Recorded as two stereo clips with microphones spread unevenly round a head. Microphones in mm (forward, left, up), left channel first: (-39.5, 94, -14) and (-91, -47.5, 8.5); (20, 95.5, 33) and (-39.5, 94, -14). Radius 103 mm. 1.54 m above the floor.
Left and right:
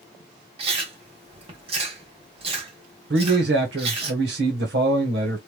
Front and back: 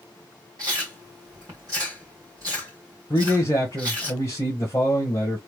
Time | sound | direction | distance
0.6 | chewing | 90° right | 1.4 m
3.1 | a man speaking | 80° right | 1.0 m